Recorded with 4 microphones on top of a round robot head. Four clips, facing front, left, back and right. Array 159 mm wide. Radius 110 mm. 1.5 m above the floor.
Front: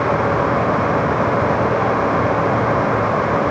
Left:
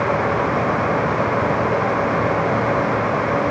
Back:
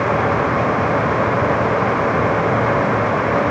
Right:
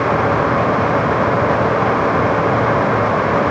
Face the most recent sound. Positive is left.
No sound to turn to.